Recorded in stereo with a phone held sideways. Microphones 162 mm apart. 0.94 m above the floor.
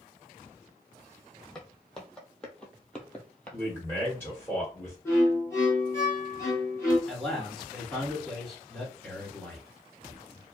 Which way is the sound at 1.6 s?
5° left (ahead or behind).